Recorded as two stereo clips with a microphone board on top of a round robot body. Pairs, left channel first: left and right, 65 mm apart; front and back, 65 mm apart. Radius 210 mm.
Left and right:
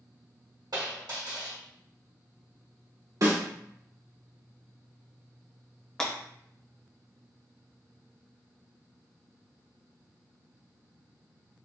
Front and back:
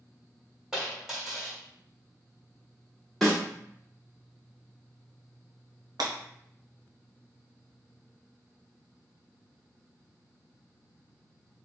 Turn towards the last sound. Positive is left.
turn(degrees=170)